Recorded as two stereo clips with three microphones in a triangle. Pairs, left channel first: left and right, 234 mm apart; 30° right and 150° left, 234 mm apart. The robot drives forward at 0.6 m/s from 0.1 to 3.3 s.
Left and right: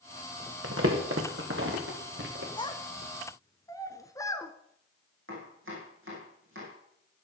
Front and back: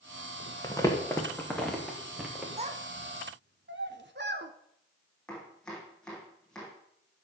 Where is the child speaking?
130° left, 0.7 m; by 4.5 s 160° left, 0.9 m.